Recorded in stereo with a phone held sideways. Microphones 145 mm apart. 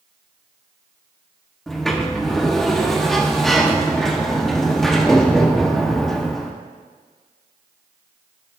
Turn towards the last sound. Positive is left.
turn(degrees=0)  # may be behind; listen again after turning